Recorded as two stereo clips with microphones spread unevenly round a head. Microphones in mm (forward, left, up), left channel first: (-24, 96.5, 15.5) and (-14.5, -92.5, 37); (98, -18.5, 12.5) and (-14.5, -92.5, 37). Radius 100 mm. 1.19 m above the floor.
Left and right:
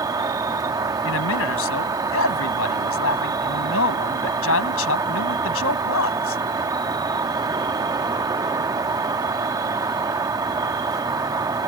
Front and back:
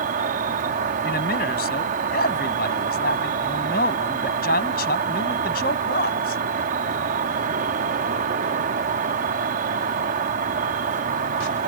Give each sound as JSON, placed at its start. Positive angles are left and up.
{"t": 0.0, "sound": "an insect", "azimuth_deg": -155}
{"t": 1.0, "sound": "a man speaking", "azimuth_deg": 70}